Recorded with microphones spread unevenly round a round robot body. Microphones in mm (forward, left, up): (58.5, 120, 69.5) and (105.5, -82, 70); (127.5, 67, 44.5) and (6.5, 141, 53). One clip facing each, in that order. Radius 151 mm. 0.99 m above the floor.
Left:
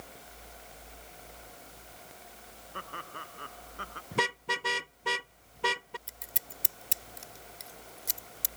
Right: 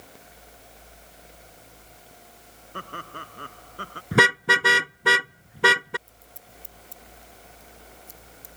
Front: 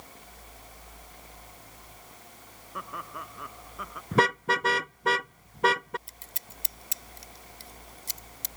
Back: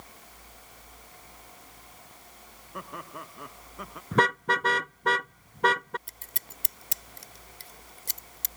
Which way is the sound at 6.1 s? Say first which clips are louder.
Left 1 dB, even; 115° left.